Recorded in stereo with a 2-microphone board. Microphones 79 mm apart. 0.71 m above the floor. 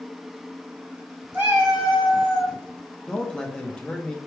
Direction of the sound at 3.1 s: 10° left (ahead or behind).